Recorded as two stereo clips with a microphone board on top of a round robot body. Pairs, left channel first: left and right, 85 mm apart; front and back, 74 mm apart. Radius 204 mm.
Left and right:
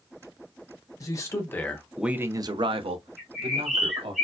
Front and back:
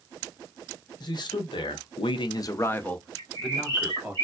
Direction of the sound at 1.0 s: 35° left.